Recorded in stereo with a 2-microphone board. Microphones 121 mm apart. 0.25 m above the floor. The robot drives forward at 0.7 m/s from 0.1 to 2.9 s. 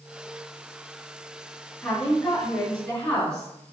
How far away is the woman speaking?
About 1.9 m.